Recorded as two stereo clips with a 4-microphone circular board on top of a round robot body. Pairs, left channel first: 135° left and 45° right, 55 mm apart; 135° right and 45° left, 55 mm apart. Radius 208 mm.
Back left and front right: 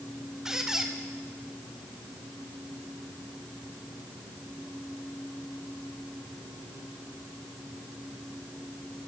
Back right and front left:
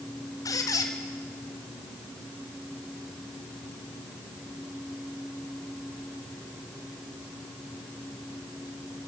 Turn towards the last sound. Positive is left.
turn(degrees=-125)